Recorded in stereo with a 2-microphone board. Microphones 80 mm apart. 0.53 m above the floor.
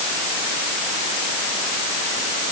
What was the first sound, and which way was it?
Only background noise.